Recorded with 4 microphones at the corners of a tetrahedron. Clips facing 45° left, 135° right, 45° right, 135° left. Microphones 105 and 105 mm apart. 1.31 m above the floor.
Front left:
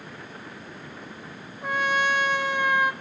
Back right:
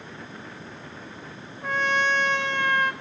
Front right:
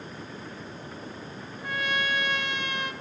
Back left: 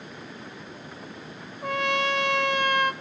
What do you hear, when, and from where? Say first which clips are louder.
1.6 s a trumpet: even, back left 5 dB; 125° left, 2.0 m